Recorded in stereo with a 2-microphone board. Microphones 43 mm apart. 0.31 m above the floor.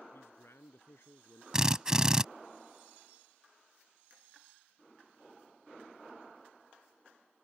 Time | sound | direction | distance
0.1 | a man speaking | 75° left (ahead or behind) | ?
1.5 | a drill | 15° right (ahead or behind) | ?